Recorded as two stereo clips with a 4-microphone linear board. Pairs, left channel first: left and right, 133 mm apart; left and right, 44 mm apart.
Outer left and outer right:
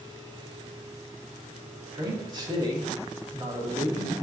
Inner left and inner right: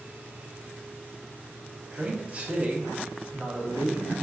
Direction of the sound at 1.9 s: 35° right (ahead or behind).